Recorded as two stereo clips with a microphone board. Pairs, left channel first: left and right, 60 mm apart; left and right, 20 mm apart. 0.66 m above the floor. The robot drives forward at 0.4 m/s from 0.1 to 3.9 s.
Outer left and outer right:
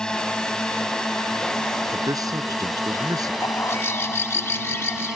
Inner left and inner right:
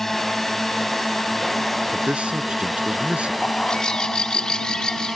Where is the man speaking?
85° right.